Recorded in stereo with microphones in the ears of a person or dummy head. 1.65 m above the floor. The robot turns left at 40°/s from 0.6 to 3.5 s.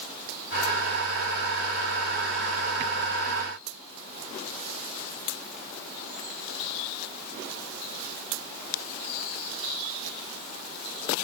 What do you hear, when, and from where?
Only background noise.